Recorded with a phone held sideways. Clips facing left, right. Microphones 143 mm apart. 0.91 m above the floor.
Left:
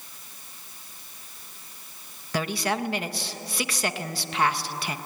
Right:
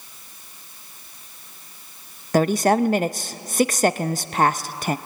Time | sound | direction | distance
2.3 | a woman speaking | 45° right (ahead or behind) | 0.5 m